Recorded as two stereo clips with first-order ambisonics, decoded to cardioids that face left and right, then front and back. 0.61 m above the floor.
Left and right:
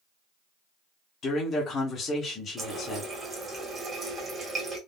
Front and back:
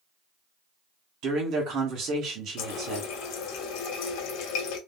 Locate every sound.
1.2 s a man speaking: 145° left, 1.3 m
2.6 s a running tap: 15° right, 0.9 m